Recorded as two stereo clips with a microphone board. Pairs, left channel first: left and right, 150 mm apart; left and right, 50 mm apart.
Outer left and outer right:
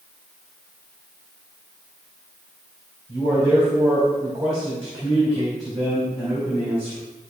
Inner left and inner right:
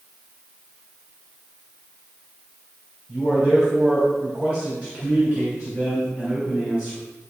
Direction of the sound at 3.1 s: 40° right (ahead or behind).